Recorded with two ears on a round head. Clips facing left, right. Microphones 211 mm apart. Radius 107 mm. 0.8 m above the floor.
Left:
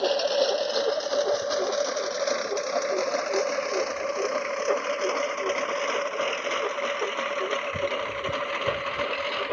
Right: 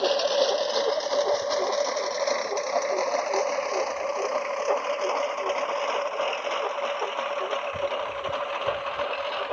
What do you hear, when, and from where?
0.0 s a lawn mower: centre (ahead or behind); by 9.5 s 30° left (ahead or behind)